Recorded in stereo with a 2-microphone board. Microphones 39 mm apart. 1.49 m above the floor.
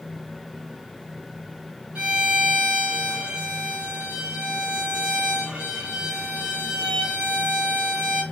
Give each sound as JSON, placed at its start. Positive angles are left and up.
{"t": 1.9, "sound": "a violin", "side_deg": -30, "distance_m": 1.8}